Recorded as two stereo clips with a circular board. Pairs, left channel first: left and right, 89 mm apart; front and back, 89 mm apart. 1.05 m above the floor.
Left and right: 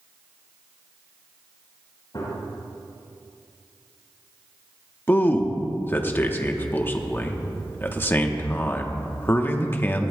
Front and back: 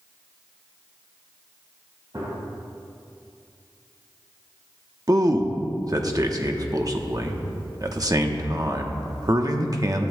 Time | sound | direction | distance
2.1 | a gunshot | 135° left | 4.5 m
5.1 | a man speaking | 150° left | 1.0 m